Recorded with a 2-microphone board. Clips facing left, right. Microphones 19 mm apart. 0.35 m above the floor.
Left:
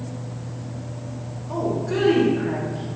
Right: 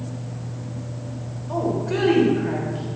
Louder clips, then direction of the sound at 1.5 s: Right 1 dB; 5° right (ahead or behind).